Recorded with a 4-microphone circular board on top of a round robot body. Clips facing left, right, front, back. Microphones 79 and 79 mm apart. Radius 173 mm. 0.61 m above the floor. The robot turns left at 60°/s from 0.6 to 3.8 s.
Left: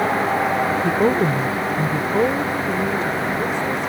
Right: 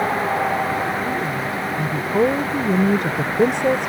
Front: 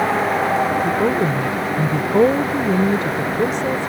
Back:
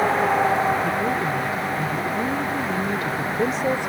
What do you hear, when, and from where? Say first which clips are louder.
0.8 s a woman speaking: left 5 dB, front 5 dB; 70° left; by 3.9 s 110° right